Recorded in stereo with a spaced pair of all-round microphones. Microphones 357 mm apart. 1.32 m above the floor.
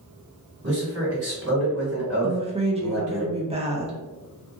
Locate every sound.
0.6 s a man speaking: 45° right (ahead or behind), 1.7 m
2.2 s a woman speaking: 15° right (ahead or behind), 0.7 m